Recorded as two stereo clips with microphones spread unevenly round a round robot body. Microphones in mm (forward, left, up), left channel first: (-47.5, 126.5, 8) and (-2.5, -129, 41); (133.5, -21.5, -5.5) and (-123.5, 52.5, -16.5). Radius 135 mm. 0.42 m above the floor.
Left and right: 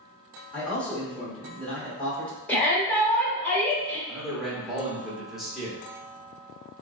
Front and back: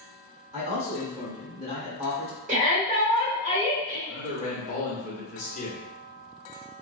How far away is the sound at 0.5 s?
About 1.0 m.